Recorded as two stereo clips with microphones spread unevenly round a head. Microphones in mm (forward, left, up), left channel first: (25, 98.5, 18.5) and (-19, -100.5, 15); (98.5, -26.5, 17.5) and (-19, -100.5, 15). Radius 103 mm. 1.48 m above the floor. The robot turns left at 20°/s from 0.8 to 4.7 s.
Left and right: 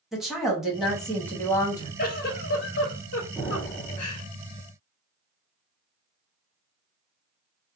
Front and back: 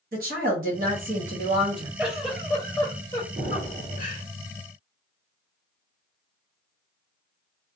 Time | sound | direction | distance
0.1 | a woman speaking | 170° left | 0.8 m
2.0 | a giggle | 125° left | 0.7 m
3.4 | an explosion | 170° left | 0.8 m